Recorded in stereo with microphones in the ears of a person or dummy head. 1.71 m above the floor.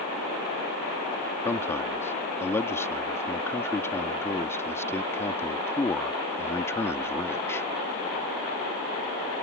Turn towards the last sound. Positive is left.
turn(degrees=20)  # may be behind; listen again after turning